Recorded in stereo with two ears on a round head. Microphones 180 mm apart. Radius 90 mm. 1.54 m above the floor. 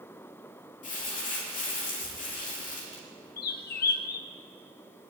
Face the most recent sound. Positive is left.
turn(degrees=50)  # may be behind; listen again after turning